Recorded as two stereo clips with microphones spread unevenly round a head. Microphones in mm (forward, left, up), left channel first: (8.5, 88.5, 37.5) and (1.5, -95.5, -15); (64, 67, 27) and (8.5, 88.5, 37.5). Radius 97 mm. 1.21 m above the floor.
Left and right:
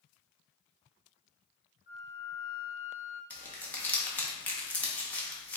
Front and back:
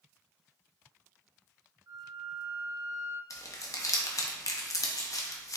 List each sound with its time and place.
1.9 s a flute: 135° left, 1.2 m
3.3 s crumpling: 5° left, 0.9 m